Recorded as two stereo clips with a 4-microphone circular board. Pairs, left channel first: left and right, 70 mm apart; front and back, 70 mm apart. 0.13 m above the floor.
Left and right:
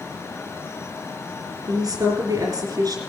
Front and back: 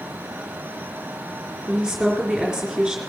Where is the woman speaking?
95° right, 4 m.